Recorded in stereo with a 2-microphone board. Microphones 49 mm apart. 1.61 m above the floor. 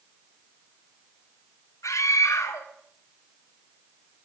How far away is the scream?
About 3.5 m.